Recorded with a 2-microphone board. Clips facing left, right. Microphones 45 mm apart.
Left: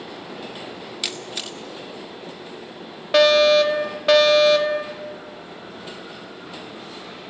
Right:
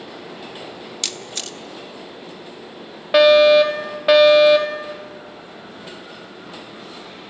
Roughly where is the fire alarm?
Centre.